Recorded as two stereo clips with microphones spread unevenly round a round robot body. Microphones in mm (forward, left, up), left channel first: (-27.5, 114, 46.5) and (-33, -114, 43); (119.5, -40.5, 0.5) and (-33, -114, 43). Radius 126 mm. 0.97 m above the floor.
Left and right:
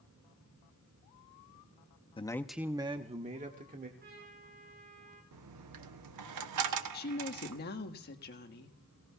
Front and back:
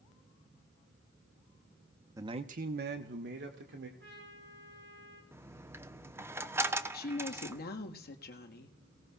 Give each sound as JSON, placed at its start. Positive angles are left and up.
{"t": 2.2, "sound": "a man speaking", "azimuth_deg": 120, "distance_m": 0.8}
{"t": 4.0, "sound": "a trumpet", "azimuth_deg": -140, "distance_m": 9.0}
{"t": 5.3, "sound": "a dropped coin", "azimuth_deg": -80, "distance_m": 0.9}
{"t": 6.9, "sound": "a woman speaking", "azimuth_deg": 40, "distance_m": 1.5}